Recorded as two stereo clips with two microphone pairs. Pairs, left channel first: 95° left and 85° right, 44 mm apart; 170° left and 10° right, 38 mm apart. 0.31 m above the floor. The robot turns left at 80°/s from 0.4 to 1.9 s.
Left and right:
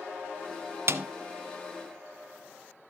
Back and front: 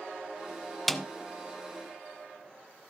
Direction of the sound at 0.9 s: 105° right.